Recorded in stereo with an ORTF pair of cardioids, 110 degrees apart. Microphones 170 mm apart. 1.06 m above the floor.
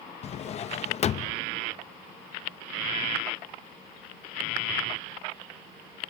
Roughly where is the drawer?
Ahead left.